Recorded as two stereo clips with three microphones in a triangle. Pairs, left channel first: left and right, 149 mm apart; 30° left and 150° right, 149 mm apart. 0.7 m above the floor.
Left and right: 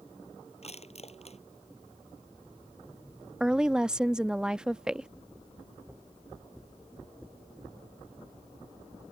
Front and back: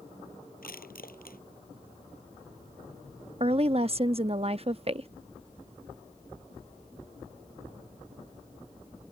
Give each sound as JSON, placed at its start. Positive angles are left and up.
{"t": 0.6, "sound": "crushing", "azimuth_deg": 45}
{"t": 3.4, "sound": "a woman speaking", "azimuth_deg": -175}